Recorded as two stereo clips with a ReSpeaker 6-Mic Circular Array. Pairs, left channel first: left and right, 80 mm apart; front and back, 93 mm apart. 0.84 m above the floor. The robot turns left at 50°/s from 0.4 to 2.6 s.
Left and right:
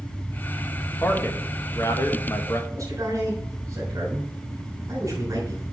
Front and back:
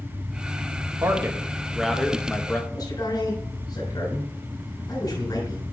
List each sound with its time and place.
1.0 s a man speaking: 140° left, 1.2 m; by 2.6 s 60° left, 1.2 m
2.7 s a man speaking: 45° right, 3.5 m